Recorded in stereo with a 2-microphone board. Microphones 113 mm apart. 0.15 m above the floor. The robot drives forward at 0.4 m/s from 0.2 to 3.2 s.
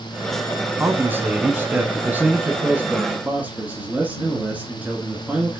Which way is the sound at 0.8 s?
20° right (ahead or behind).